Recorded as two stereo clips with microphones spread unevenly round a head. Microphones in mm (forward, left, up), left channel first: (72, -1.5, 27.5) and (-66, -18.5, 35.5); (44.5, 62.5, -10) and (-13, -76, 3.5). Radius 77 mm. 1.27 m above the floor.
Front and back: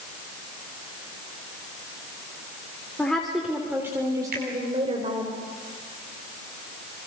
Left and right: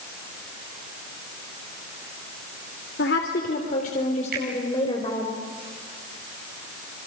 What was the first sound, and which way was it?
A woman speaking, 90° left.